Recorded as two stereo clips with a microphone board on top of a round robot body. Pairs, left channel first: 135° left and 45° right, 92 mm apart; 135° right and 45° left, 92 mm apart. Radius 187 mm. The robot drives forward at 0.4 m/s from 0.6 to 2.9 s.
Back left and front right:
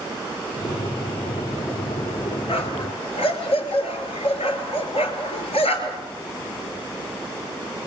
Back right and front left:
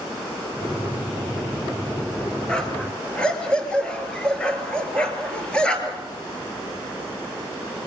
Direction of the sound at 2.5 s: 145° left.